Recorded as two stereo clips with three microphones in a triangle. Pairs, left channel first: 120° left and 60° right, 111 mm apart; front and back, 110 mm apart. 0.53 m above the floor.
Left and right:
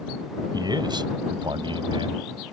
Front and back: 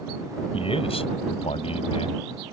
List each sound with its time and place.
0.5 s a man speaking: 15° right; by 2.5 s 25° right